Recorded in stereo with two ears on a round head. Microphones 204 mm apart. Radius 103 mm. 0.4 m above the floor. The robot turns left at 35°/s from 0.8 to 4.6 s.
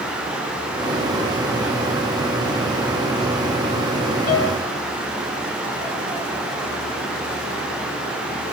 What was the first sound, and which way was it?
A piano, 35° left (ahead or behind).